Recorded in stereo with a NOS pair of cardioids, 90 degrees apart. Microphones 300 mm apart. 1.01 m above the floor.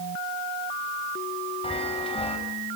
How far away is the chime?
About 4.5 m.